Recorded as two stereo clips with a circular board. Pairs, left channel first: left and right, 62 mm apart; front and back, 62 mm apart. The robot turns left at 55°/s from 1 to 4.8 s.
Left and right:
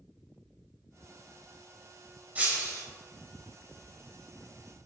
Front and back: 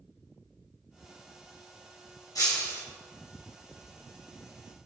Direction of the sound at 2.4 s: 20° right.